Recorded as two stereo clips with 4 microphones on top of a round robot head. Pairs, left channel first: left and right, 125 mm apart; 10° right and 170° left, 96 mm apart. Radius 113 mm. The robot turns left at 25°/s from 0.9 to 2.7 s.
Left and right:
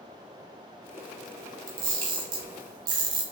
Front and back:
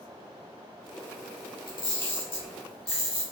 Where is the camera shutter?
70° right, 0.7 m; by 3.2 s 100° right, 0.7 m.